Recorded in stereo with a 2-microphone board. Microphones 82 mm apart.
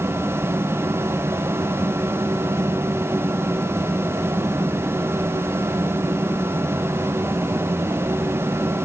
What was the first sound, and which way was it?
Only background noise.